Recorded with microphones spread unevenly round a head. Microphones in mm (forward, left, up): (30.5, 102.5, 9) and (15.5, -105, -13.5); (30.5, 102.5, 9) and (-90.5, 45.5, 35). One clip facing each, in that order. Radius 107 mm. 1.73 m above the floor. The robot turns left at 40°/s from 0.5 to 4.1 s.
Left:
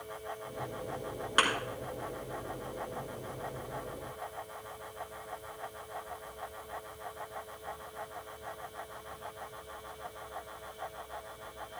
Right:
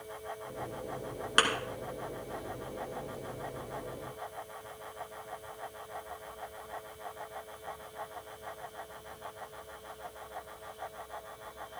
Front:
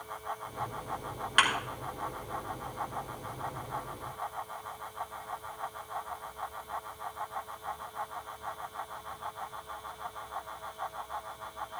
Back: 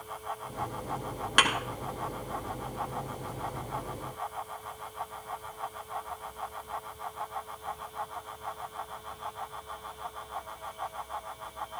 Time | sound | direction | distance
1.4 | a thud | 155° right | 2.5 m